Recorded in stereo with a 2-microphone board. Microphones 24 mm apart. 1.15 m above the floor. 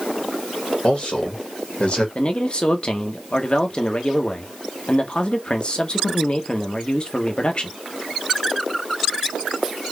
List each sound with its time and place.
0.8 s a man speaking: 50° left (ahead or behind), 1.4 m
2.1 s a man speaking: 50° left (ahead or behind), 0.8 m